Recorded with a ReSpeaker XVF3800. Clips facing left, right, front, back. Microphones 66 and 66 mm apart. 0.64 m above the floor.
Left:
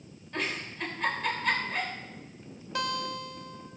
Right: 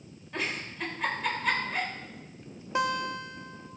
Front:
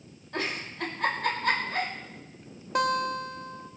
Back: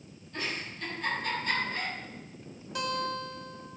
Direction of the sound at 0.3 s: 5° right.